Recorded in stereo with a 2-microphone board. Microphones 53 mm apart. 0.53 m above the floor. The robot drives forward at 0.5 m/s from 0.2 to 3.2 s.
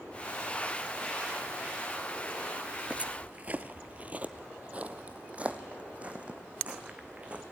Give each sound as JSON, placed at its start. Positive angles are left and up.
{"t": 2.9, "sound": "footsteps", "side_deg": -25, "distance_m": 0.6}